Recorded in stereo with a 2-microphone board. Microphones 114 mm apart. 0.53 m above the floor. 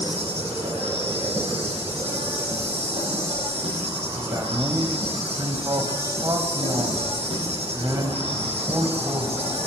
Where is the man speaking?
35° right (ahead or behind), 3 m.